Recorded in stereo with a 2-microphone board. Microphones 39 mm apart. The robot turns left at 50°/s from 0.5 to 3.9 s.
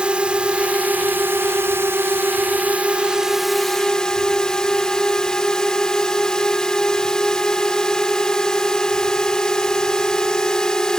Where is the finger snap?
I don't hear a finger snap.